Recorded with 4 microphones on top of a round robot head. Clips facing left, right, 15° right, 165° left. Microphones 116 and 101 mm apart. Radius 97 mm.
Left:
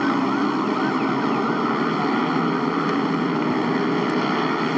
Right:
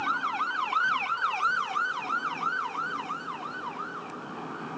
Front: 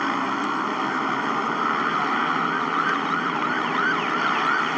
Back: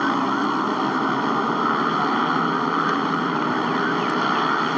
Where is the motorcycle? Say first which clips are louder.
Left 11 dB, back 3 dB; 95° left.